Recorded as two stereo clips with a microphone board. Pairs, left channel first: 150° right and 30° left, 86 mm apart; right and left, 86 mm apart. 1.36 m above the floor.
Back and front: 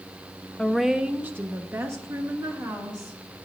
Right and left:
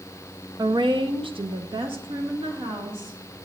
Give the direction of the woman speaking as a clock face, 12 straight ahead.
8 o'clock.